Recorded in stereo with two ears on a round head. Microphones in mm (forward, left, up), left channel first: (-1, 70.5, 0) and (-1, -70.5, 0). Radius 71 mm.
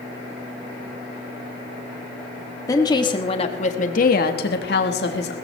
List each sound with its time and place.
2.7 s a woman speaking: 20° left (ahead or behind), 1.6 m; by 5.3 s 70° left (ahead or behind), 1.6 m